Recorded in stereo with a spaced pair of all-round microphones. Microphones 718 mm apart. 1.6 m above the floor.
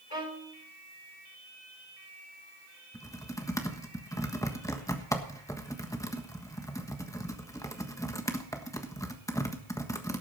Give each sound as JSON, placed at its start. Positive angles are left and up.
{"t": 0.1, "sound": "a violin", "side_deg": 60, "distance_m": 4.5}
{"t": 2.9, "sound": "typing on a keyboard", "side_deg": 5, "distance_m": 1.3}